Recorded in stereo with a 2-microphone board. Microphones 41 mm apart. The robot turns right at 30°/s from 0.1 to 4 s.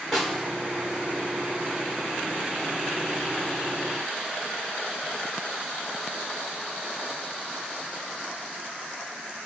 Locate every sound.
0.1 s a snare drum: 5° right (ahead or behind), 2 m; by 0.4 s 10° right (ahead or behind), 2 m